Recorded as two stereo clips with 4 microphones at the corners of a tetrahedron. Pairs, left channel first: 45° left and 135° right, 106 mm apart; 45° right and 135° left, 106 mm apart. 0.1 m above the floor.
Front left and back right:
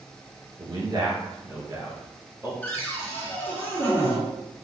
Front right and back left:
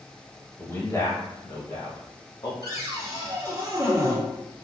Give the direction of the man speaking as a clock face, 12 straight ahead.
3 o'clock.